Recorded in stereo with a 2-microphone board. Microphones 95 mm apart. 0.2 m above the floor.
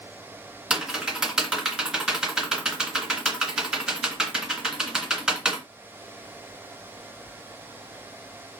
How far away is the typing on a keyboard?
About 1.9 m.